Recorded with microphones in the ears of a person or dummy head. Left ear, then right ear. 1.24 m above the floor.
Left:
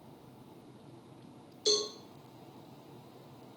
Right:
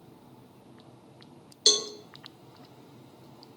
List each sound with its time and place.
1.7 s a cowbell: 50° right (ahead or behind), 0.7 m